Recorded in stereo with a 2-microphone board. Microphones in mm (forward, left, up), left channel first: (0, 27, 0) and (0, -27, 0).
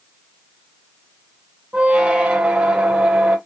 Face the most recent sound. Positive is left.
turn(degrees=-20)  # may be behind; listen again after turning